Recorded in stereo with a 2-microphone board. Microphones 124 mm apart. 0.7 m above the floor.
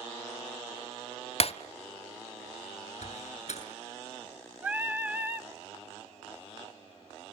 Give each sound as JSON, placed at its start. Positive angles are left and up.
{"t": 1.4, "sound": "breaking glass", "side_deg": 55, "distance_m": 0.8}
{"t": 3.0, "sound": "a door slam", "side_deg": 65, "distance_m": 6.5}
{"t": 4.6, "sound": "singing", "side_deg": -15, "distance_m": 0.6}